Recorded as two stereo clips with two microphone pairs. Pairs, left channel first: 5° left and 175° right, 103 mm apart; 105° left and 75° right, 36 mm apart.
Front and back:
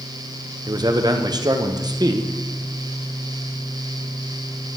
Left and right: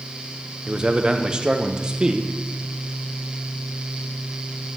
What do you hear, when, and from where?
0.7 s a man speaking: 135° right, 0.7 m